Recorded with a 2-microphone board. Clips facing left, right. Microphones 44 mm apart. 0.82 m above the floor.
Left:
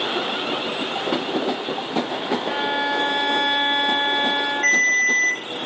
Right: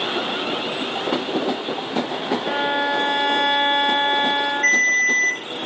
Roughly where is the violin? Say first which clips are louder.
Right 3 dB; right.